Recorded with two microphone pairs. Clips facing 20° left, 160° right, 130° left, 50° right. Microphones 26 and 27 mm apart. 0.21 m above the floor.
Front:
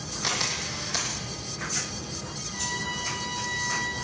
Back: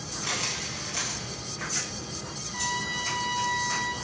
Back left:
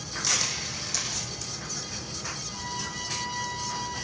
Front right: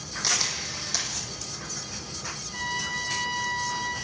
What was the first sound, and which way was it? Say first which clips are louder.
A camera shutter: front 3 dB, front right 1 dB; 15° left.